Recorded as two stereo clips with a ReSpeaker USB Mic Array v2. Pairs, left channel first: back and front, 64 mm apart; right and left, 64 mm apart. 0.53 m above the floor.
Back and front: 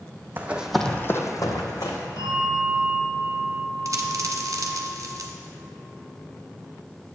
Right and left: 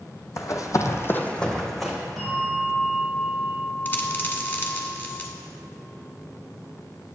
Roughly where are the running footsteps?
Ahead right.